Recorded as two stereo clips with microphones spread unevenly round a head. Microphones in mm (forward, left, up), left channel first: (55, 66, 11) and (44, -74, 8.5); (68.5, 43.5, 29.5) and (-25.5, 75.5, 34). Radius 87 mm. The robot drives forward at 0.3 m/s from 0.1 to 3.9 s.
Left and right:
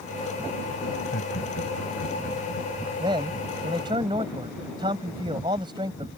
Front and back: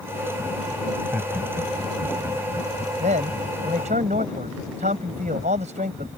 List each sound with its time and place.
0.9 s laughter: 85° left
3.0 s a man speaking: 160° right; by 6.1 s 165° right